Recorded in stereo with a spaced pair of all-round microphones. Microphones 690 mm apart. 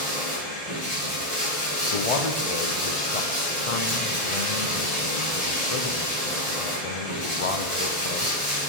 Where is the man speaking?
55° left (ahead or behind), 0.7 m.